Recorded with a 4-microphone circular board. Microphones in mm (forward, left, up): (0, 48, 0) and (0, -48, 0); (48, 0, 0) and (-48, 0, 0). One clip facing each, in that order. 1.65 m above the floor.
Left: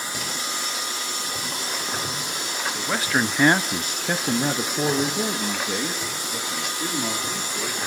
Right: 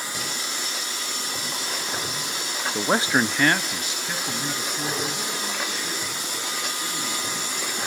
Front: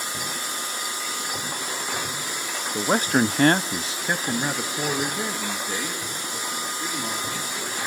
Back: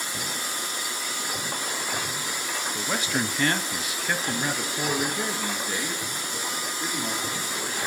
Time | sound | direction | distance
2.8 | a man speaking | 50° right | 0.8 m